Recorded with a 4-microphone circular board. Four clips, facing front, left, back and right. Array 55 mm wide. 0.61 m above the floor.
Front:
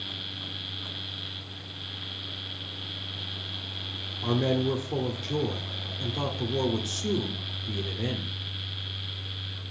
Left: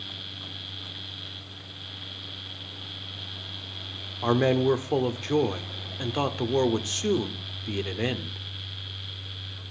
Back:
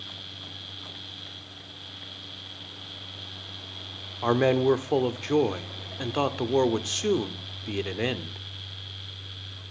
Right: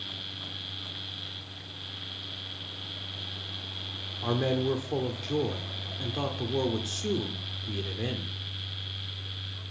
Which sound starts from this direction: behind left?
A man speaking, at 4.2 s.